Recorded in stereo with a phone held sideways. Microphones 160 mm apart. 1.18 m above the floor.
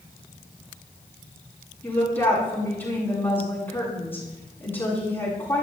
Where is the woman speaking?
10° left (ahead or behind), 9.5 m.